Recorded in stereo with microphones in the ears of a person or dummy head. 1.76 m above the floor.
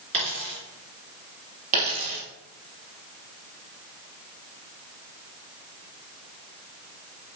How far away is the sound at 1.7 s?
About 3 m.